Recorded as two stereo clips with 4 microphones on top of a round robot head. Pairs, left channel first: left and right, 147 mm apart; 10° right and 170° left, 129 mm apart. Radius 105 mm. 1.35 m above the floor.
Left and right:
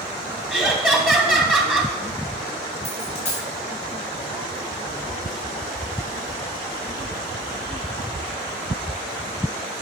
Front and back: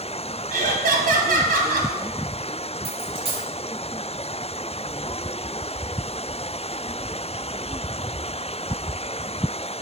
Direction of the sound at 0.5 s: 175° left.